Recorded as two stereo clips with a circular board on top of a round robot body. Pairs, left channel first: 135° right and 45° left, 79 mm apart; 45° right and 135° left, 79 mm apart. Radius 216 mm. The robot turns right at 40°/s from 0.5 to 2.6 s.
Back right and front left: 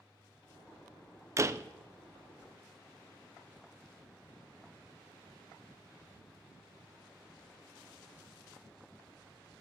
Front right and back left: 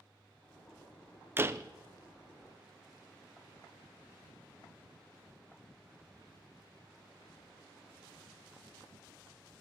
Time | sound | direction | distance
1.4 | a door slam | 80° left | 0.6 m